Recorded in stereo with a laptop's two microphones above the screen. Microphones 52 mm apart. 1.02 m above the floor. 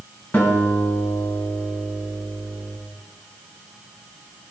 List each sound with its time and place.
0.3 s a guitar: 45° left (ahead or behind), 4.5 m